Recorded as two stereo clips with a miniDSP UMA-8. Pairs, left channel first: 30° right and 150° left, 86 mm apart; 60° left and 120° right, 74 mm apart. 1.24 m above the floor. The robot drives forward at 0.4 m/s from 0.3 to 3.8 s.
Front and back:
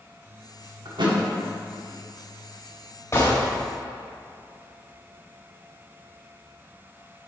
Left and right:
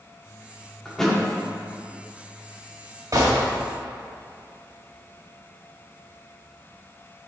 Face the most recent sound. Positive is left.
turn(degrees=-90)